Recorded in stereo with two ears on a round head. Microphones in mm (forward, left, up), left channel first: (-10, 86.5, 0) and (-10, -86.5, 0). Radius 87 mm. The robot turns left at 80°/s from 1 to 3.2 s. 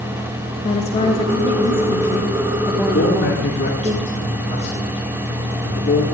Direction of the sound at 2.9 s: 55° left (ahead or behind).